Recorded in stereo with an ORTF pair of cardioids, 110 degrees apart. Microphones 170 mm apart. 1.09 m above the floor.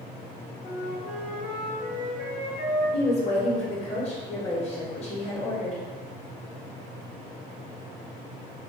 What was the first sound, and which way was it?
A flute, 50° left.